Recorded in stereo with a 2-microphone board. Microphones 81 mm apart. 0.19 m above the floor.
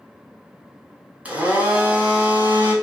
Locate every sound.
1.2 s a blender: 15° right (ahead or behind), 0.8 m